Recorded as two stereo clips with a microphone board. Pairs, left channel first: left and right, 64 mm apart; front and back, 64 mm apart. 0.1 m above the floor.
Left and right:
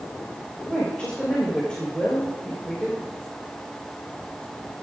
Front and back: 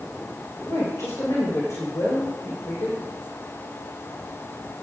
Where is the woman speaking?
15° left, 5.5 m.